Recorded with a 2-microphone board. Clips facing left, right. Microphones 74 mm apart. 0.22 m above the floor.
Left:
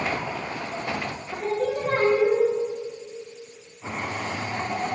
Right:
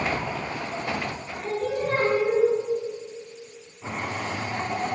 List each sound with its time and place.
1.3 s singing: 65° left (ahead or behind), 6.5 m